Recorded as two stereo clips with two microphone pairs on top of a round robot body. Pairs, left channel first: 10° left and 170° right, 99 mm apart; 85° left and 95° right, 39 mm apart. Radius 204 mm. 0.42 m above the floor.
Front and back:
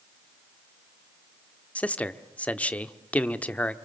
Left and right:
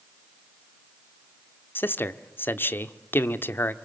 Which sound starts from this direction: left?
A man speaking, at 1.8 s.